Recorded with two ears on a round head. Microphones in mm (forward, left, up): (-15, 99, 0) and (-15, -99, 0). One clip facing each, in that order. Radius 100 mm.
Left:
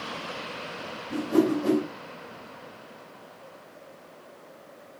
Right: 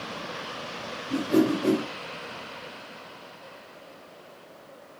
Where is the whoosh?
30° right (ahead or behind), 1.8 m.